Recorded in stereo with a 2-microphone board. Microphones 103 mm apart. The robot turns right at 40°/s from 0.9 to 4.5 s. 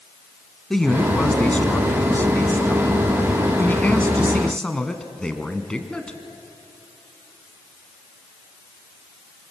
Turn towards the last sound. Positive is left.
turn(degrees=10)  # may be behind; listen again after turning